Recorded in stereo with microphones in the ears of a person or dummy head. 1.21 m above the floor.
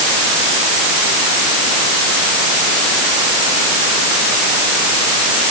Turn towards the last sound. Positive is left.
No sound to turn to.